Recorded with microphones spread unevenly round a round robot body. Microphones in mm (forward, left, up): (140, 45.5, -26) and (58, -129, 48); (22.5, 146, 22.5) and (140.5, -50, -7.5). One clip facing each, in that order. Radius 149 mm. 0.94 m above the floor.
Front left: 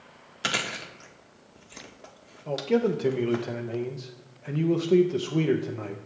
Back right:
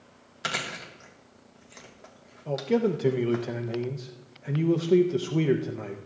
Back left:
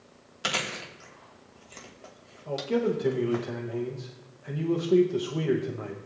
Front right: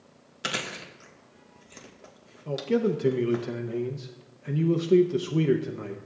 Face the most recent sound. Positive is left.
turn(degrees=-15)